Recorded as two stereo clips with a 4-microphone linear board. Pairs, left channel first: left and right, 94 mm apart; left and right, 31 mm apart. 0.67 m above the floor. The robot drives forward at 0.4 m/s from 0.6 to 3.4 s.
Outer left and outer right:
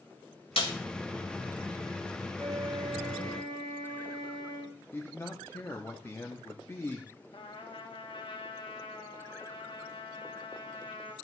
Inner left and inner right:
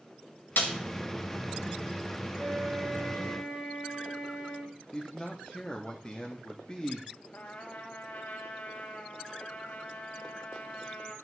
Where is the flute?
55° right (ahead or behind), 3 m; by 4.8 s 45° right (ahead or behind), 3 m.